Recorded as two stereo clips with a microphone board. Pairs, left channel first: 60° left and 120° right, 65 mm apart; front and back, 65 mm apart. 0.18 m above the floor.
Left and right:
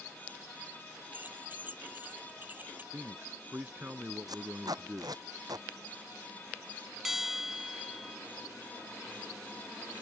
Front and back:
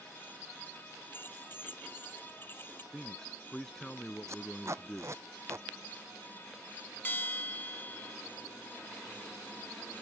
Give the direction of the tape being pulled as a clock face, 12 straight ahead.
5 o'clock.